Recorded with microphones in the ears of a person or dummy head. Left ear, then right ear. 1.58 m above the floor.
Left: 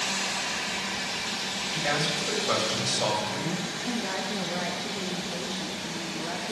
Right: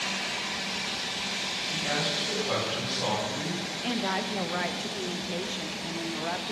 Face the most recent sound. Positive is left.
turn(degrees=-30)  # may be behind; listen again after turning